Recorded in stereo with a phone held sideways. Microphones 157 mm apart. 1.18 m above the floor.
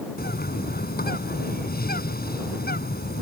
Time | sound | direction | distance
0.2 | a bird | 75° left (ahead or behind) | ?